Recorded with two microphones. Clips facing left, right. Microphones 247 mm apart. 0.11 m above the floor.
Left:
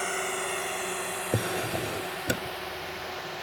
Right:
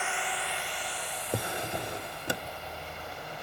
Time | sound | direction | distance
0.0 | a drone | 40° left (ahead or behind) | ?
1.3 | a drawer | 20° left (ahead or behind) | ?